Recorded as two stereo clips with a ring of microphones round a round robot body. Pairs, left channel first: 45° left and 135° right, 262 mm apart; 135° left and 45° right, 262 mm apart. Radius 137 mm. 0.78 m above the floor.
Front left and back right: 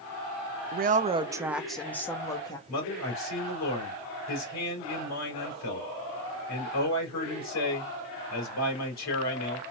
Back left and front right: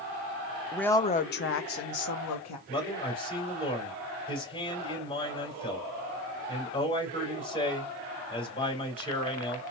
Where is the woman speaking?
130° right, 0.5 m; by 2.6 s 120° left, 1.1 m.